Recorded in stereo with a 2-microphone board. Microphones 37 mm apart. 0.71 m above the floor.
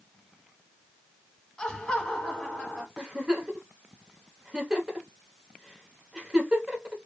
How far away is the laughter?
About 1.5 m.